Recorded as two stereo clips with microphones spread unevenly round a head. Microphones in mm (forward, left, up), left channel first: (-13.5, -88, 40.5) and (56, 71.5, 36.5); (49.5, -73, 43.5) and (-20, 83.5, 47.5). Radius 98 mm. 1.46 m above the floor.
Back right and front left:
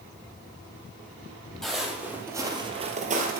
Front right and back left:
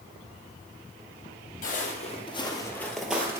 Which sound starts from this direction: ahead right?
Footsteps, at 1.6 s.